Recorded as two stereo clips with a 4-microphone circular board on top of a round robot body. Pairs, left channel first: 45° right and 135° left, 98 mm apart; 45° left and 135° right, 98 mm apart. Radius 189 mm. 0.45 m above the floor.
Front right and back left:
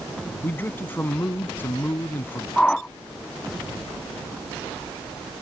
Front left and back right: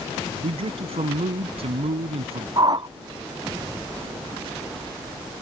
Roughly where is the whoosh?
Behind right.